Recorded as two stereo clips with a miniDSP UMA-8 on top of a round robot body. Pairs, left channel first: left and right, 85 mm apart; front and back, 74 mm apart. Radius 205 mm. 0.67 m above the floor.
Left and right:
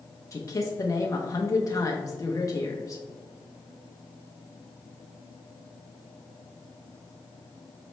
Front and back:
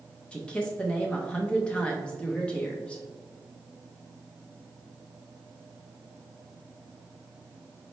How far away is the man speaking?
About 0.8 m.